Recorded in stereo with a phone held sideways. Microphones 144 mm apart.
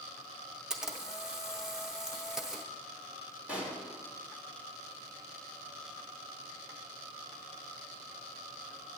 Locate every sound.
0.7 s a camera shutter: 5° right (ahead or behind), 0.7 m
3.5 s a pop: 10° right (ahead or behind), 1.8 m